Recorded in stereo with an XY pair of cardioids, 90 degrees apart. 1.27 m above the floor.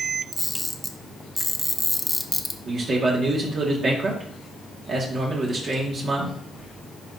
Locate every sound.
0.3 s a camera shutter: 5° left, 1.0 m
2.6 s a man speaking: 55° right, 2.0 m